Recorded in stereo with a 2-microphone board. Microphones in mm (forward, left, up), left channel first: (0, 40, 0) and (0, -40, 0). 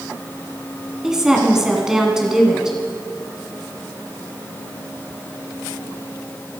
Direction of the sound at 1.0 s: 5° right (ahead or behind).